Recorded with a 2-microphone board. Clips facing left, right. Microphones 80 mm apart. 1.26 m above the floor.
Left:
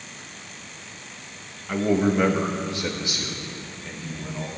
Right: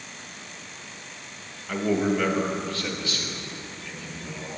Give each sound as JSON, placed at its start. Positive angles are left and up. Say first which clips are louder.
{"t": 1.7, "sound": "a man speaking", "louder": "left 2 dB", "side_deg": 10, "distance_m": 1.3}